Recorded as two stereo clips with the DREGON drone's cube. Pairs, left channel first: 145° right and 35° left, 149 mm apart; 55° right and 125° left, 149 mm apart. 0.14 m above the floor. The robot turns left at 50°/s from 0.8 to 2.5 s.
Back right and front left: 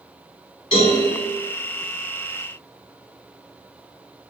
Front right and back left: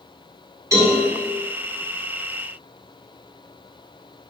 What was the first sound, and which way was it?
A cowbell, 175° right.